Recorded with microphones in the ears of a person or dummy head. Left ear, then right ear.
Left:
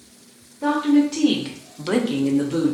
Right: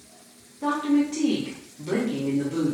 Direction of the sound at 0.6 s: 5° left (ahead or behind).